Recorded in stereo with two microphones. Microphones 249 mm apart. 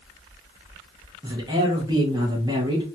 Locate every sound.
1.2 s a man speaking: 15° right (ahead or behind), 0.8 m